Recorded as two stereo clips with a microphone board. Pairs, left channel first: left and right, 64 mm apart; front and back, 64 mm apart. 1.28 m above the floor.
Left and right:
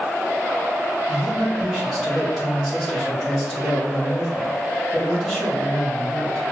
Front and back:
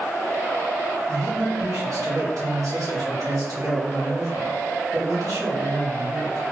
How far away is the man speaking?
About 1.9 m.